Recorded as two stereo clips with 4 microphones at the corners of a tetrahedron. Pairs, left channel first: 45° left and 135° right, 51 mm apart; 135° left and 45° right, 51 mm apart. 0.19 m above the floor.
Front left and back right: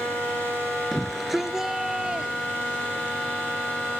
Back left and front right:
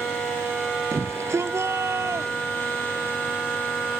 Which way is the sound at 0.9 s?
45° right.